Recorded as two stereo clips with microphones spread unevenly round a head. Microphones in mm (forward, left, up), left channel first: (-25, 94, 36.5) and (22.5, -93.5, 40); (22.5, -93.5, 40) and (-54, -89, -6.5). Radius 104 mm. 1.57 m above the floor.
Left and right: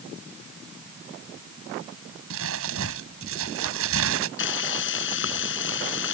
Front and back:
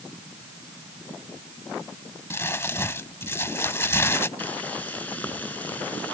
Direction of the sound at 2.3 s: 55° right.